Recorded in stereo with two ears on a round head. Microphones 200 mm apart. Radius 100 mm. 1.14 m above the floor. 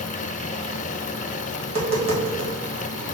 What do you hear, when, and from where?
1.6 s tapping: 30° right (ahead or behind), 1.1 m